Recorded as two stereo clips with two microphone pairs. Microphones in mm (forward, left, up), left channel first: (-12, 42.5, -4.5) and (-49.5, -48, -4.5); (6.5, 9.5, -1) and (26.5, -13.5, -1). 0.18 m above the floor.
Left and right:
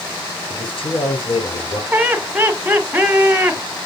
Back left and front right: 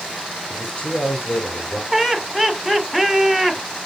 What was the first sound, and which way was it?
A man speaking, 75° left.